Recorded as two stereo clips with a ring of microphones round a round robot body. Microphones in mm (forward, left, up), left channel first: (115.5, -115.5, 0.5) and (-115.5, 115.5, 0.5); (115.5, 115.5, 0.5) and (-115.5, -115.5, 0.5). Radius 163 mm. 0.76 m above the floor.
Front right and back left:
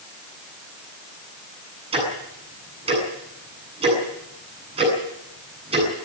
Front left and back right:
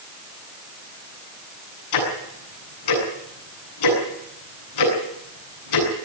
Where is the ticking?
60° left, 8 m.